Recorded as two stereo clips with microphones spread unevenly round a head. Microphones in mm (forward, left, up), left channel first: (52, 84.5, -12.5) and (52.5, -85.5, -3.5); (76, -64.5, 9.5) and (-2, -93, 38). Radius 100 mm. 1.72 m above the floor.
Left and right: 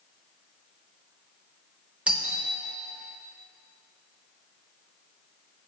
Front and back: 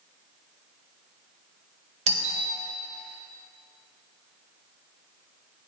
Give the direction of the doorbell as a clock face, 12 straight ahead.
6 o'clock.